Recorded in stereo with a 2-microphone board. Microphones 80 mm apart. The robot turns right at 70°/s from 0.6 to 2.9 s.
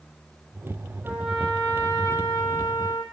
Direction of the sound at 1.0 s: 20° right.